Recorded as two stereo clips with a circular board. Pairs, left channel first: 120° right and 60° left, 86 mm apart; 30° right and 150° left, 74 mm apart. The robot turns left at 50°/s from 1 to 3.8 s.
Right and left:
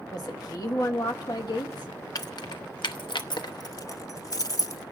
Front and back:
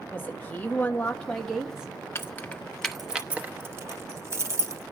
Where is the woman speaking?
90° right, 1.1 m; by 1.9 s 140° right, 1.1 m.